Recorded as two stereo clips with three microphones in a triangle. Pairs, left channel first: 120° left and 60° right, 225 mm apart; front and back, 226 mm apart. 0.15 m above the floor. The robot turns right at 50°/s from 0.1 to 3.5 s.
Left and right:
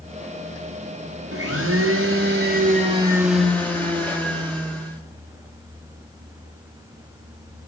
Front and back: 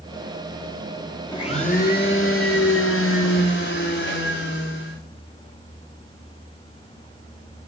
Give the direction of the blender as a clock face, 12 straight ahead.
2 o'clock.